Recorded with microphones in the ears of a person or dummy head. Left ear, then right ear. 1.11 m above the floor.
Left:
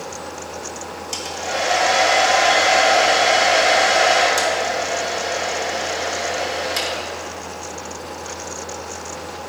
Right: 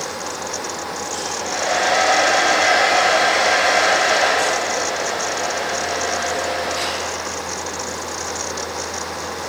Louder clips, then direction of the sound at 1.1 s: Left 2 dB; 70° left (ahead or behind).